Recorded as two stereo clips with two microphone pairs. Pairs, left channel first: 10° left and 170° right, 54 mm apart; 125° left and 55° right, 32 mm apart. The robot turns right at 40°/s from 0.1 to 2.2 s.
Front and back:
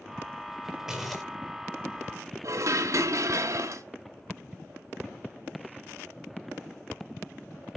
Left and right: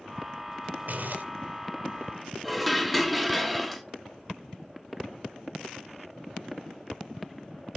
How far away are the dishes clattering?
About 1.3 m.